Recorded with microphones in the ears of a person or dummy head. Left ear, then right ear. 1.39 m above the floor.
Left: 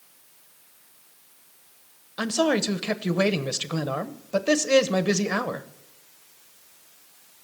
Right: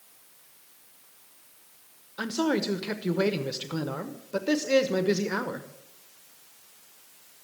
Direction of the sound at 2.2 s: 30° left (ahead or behind).